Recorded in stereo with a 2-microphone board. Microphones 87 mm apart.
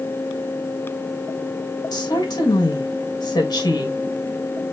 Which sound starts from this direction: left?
A woman speaking, at 1.9 s.